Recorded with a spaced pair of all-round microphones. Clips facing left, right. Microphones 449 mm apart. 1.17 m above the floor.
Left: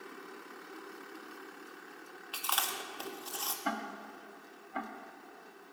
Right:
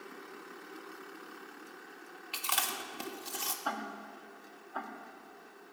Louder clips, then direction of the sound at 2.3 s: Even; 40° right (ahead or behind).